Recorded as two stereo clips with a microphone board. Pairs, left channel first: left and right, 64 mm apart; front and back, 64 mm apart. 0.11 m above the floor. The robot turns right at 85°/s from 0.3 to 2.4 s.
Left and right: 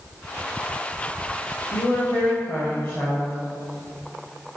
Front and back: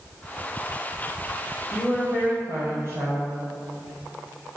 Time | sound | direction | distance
1.7 | a woman speaking | 85° left | 2.5 m